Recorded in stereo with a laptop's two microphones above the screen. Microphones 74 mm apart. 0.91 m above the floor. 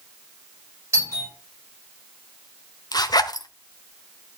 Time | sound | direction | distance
0.9 | a doorbell | 35° right (ahead or behind) | 5.5 m
2.9 | a zipper | 65° left (ahead or behind) | 0.9 m